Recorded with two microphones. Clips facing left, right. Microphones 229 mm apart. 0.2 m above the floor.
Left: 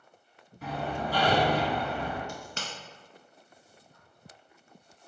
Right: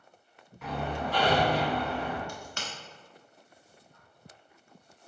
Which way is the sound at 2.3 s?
35° left (ahead or behind).